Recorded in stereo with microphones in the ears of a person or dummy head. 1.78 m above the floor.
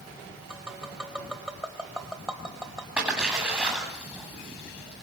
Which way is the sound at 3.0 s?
10° right (ahead or behind).